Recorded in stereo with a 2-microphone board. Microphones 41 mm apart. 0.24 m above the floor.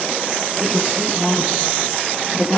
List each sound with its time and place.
0.6 s a woman speaking: 15° right (ahead or behind), 5 m